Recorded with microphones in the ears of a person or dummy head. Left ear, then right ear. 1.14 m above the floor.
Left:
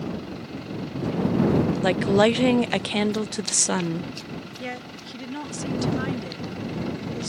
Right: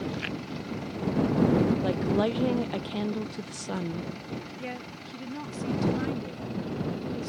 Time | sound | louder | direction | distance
1.8 | a woman speaking | left 8 dB | 50° left (ahead or behind) | ?
4.6 | a woman speaking | left 4 dB | 20° left (ahead or behind) | ?